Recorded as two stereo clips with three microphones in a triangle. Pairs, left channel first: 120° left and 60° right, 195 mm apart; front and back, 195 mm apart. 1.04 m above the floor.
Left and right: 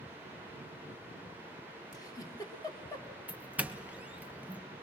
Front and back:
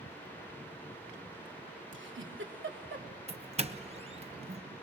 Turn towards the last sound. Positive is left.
turn(degrees=-140)